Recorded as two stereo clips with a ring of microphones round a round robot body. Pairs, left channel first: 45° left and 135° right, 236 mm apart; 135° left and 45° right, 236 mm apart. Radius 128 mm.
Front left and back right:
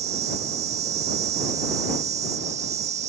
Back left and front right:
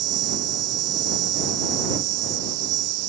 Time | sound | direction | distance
0.0 | an insect | 70° right | ?